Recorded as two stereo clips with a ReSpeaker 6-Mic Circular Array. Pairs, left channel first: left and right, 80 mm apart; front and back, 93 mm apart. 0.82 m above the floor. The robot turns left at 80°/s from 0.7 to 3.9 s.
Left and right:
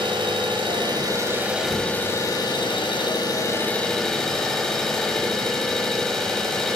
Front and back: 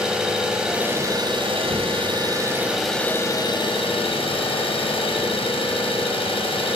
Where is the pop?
No pop in this recording.